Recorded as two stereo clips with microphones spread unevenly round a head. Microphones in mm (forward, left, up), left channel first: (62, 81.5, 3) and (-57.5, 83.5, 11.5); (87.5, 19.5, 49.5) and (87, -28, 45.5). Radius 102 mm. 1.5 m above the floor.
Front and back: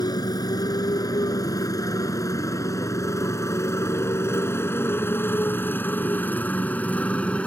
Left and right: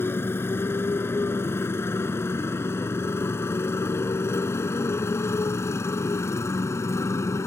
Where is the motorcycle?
55° left; by 7.5 s 80° left.